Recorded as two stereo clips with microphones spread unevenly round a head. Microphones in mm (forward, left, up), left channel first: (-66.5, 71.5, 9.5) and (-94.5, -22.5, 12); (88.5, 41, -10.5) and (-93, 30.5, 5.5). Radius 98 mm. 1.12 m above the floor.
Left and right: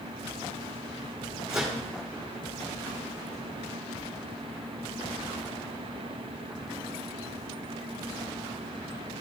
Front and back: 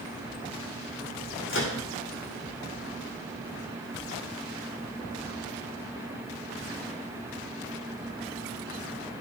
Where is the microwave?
30° right, 1.4 m.